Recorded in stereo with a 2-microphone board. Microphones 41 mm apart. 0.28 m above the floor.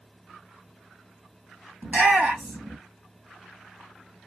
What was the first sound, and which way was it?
A shout, 40° right (ahead or behind).